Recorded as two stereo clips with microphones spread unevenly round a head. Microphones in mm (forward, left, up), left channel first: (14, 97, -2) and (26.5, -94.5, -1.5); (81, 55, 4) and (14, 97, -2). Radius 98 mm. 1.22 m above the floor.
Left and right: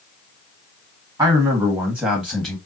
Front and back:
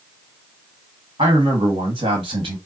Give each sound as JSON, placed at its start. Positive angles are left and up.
{"t": 1.2, "sound": "a man speaking", "azimuth_deg": -160, "distance_m": 1.9}